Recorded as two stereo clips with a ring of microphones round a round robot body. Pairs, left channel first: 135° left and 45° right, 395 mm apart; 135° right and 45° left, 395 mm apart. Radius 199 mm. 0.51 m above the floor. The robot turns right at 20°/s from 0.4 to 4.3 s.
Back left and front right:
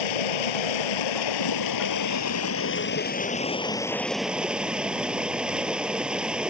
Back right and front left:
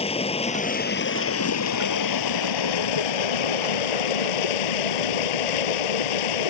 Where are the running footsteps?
I don't hear running footsteps.